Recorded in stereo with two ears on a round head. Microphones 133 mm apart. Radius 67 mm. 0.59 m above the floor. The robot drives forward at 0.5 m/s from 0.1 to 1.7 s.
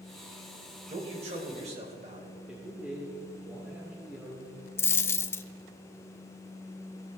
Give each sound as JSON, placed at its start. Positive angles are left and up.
{"t": 0.9, "sound": "a man speaking", "side_deg": -40, "distance_m": 3.0}
{"t": 2.5, "sound": "a man speaking", "side_deg": -5, "distance_m": 2.0}
{"t": 4.8, "sound": "a dropped coin", "side_deg": 15, "distance_m": 0.6}